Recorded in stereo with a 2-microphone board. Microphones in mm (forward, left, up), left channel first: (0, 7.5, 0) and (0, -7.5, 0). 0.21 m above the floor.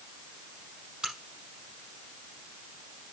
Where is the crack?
80° right, 5 m.